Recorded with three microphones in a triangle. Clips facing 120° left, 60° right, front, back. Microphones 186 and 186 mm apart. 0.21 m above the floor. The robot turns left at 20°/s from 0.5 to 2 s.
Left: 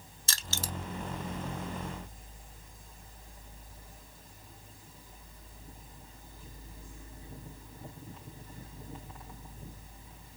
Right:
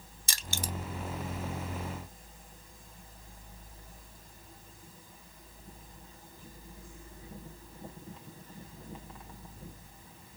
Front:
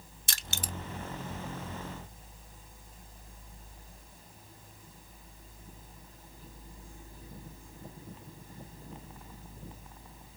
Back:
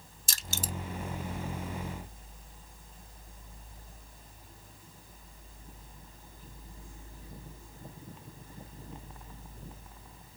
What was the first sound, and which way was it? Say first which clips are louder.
Crushing: right 1 dB, back 2 dB; 10° left.